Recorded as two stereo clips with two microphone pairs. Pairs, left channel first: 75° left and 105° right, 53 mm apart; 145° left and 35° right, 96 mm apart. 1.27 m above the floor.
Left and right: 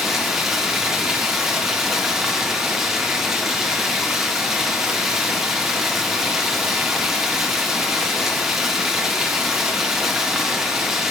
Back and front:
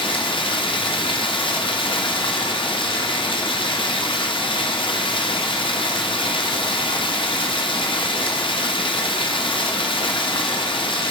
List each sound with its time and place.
0.0 s running water: 175° left, 0.9 m